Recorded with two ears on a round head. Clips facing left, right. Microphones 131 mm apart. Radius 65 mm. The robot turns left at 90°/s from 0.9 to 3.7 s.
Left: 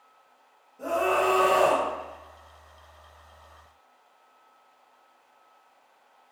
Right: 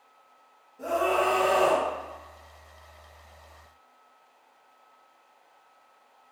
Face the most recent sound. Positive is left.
turn(degrees=-70)